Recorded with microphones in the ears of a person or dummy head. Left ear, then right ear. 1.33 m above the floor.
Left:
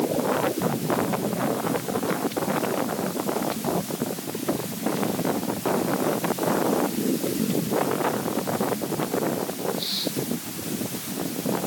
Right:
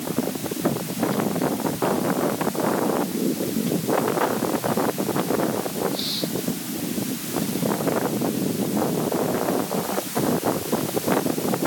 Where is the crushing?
I don't hear crushing.